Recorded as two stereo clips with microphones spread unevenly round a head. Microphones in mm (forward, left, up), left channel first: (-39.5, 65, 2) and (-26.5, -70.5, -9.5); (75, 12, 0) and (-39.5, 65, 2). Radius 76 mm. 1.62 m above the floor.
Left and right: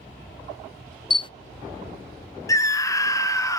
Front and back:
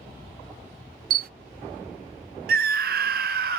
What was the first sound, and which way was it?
A camera shutter, 150° left.